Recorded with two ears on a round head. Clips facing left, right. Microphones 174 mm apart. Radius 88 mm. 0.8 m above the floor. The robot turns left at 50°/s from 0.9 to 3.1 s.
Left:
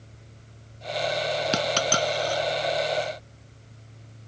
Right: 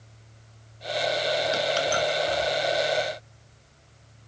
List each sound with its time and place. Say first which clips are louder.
1.5 s a dropped coin: even; 65° left (ahead or behind), 1.5 m; by 2.4 s 30° left (ahead or behind), 1.5 m